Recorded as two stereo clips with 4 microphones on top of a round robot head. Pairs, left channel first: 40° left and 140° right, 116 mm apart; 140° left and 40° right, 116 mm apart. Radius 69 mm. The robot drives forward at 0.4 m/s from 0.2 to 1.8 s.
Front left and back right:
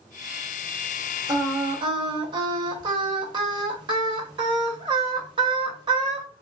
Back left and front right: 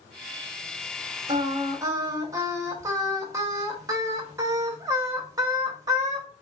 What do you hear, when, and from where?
1.3 s singing: 85° right, 0.9 m; by 6.3 s 100° right, 0.9 m